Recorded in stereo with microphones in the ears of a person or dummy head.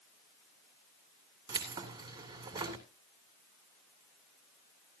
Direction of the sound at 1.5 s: 20° right (ahead or behind).